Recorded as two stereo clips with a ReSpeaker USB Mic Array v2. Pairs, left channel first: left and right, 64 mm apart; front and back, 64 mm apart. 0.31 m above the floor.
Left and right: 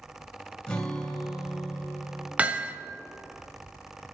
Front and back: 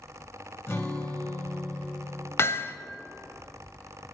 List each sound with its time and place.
0.7 s a guitar: 25° left, 1.7 m
2.4 s hammering: 30° right, 0.6 m